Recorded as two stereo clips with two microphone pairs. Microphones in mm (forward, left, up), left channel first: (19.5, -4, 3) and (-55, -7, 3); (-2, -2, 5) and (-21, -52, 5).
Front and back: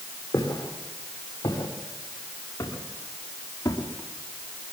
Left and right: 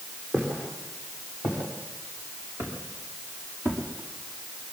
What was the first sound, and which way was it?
Footsteps, 50° right.